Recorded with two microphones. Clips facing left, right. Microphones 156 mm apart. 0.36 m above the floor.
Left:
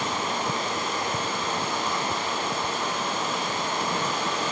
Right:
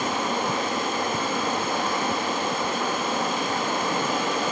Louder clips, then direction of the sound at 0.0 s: Right 3 dB; 55° right (ahead or behind).